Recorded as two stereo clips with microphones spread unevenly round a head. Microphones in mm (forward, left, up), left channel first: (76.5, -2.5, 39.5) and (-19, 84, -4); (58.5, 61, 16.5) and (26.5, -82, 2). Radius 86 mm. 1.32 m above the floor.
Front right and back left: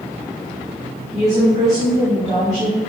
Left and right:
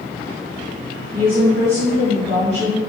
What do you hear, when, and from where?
1.1 s a woman speaking: 155° right, 2.5 m